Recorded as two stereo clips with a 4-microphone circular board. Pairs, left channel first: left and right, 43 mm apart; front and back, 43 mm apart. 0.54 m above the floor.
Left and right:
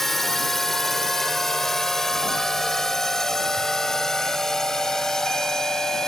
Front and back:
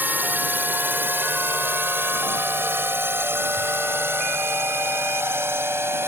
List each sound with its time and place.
0.0 s a drone: 170° left; by 6.1 s 165° left